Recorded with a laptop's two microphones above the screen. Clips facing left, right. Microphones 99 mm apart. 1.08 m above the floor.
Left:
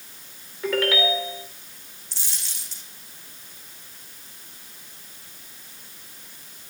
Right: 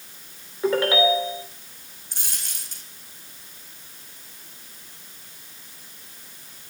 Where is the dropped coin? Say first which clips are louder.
Right 2 dB; 50° right (ahead or behind), 5 m.